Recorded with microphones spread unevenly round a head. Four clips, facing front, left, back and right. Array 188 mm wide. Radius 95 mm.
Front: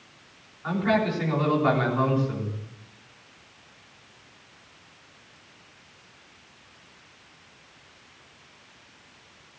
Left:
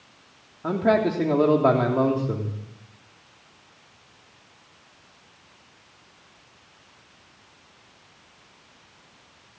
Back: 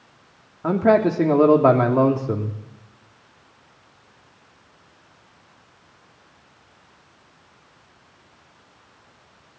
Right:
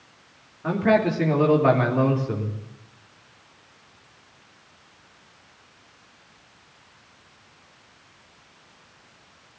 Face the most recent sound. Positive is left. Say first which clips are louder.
# right 1 dB, back 8 dB
turn(degrees=165)